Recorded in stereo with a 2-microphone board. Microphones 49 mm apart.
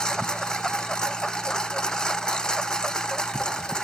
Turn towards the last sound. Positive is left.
turn(degrees=15)  # may be behind; listen again after turning